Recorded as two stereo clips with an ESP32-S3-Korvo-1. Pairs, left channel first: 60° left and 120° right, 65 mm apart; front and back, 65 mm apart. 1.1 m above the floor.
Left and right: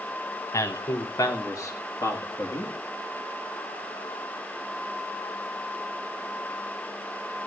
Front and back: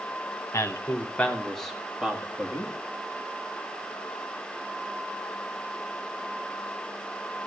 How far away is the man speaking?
About 1.3 m.